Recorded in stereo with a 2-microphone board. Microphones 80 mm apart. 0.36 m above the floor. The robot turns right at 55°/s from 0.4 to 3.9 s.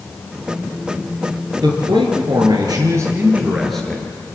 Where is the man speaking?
115° right, 5 m; by 4.3 s 10° left, 5 m.